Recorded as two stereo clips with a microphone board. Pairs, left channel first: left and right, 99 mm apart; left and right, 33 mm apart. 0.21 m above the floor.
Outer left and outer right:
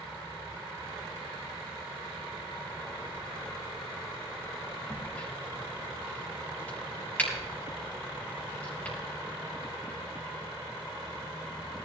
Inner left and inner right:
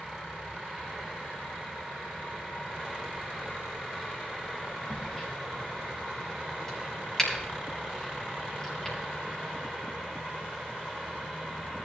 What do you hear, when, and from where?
4.9 s a crack: 15° left (ahead or behind), 5.5 m